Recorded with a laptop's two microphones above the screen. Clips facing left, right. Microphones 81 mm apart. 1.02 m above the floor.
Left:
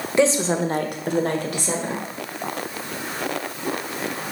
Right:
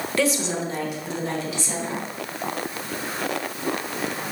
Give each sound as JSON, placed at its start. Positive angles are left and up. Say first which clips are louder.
{"t": 0.2, "sound": "a woman speaking", "louder": "left 5 dB", "side_deg": 20, "distance_m": 0.9}